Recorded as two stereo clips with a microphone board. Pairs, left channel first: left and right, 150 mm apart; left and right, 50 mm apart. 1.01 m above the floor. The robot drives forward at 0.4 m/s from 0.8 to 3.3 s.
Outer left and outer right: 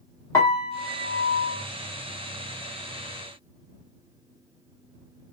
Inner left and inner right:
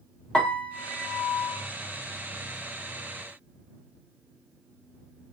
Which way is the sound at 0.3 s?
20° left (ahead or behind).